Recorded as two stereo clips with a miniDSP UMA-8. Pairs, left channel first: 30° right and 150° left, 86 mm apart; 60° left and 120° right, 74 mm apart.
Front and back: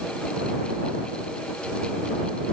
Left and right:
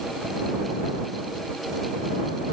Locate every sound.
Only background noise.